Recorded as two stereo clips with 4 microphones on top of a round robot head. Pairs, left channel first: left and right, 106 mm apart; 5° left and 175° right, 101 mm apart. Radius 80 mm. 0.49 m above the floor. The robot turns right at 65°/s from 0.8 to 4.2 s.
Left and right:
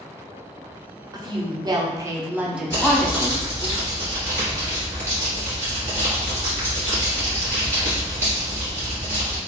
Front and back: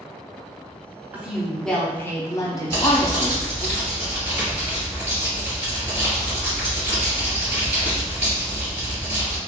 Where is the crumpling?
155° left, 2.0 m; by 9.4 s 110° right, 2.0 m.